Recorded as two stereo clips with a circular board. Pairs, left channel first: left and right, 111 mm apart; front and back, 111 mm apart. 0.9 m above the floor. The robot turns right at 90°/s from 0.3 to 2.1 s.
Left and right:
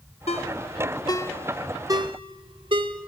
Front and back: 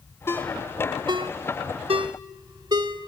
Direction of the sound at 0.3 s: 70° left.